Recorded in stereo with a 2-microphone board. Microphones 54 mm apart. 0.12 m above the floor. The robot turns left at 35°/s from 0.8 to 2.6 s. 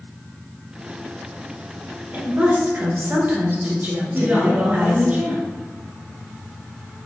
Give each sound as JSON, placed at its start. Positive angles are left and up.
{"t": 2.1, "sound": "a woman speaking", "side_deg": -35, "distance_m": 1.4}
{"t": 4.1, "sound": "a woman speaking", "side_deg": -30, "distance_m": 1.8}